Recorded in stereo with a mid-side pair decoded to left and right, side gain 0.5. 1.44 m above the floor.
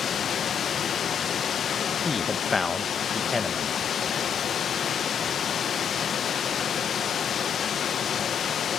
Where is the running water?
50° left, 1.2 m.